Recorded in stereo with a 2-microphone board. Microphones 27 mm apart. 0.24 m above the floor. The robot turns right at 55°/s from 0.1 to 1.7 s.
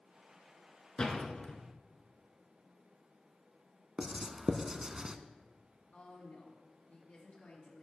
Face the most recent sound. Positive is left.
turn(degrees=60)  # may be behind; listen again after turning